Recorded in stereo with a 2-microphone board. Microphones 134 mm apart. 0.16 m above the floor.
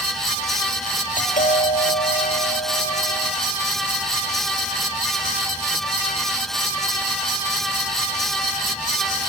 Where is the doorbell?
65° left (ahead or behind), 4 m.